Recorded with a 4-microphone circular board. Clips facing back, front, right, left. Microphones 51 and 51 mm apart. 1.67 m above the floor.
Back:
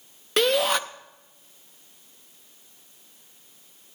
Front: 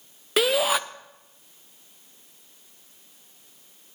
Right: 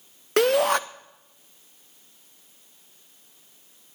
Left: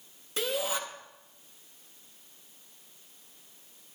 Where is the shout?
85° right, 0.5 m.